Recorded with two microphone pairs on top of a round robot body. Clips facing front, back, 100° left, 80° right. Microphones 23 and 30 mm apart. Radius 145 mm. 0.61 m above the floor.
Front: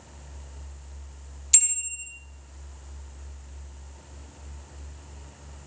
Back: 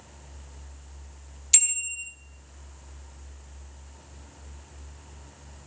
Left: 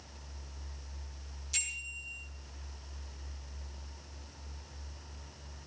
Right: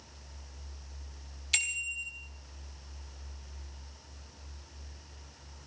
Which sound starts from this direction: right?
A bicycle bell, at 1.5 s.